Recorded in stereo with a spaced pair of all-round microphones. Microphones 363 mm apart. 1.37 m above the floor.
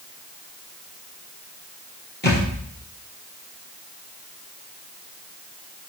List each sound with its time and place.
2.2 s a thud: 30° left (ahead or behind), 4 m